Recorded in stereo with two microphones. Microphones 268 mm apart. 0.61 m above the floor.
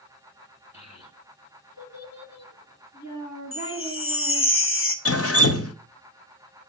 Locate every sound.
0.7 s a child speaking: 50° left (ahead or behind), 1.7 m; by 4.5 s 85° left, 3.5 m
3.5 s a chime: 50° left (ahead or behind), 1.2 m
5.0 s dripping: 60° left (ahead or behind), 0.9 m